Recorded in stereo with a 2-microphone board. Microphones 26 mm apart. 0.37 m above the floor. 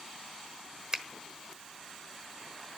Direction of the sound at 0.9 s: 30° right (ahead or behind).